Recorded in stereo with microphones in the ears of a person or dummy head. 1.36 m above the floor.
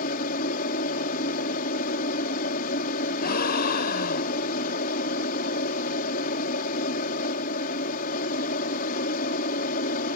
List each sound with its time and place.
0.0 s an aircraft: 45° left (ahead or behind)
3.2 s a gasp: 55° left (ahead or behind)